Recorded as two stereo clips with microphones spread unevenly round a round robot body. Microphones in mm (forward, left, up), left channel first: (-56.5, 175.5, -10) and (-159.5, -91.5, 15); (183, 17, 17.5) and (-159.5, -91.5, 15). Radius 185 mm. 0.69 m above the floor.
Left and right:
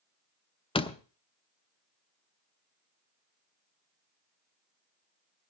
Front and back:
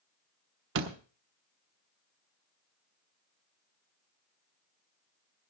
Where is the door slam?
140° left, 1.0 m.